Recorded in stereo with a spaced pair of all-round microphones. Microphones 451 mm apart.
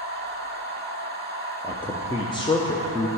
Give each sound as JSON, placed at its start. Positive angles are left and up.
{"t": 0.0, "sound": "a machine running", "side_deg": -20, "distance_m": 1.1}
{"t": 1.6, "sound": "a man speaking", "side_deg": 10, "distance_m": 0.5}